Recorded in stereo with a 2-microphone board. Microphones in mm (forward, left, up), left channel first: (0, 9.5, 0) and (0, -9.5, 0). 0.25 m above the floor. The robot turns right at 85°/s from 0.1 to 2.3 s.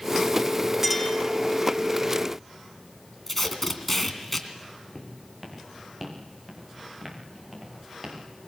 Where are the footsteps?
5° left (ahead or behind), 7 m; by 8.2 s 25° right (ahead or behind), 7.5 m.